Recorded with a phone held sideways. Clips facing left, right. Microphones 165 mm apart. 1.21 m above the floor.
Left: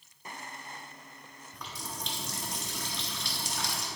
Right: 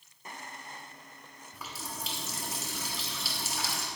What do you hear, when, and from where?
1.5 s a running tap: 5° right (ahead or behind), 1.6 m